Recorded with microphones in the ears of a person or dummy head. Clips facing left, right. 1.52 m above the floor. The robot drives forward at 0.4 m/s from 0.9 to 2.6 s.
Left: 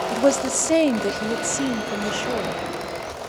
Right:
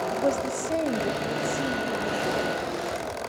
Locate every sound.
0.1 s a woman speaking: 75° left (ahead or behind), 0.8 m; by 2.6 s 45° left (ahead or behind), 1.2 m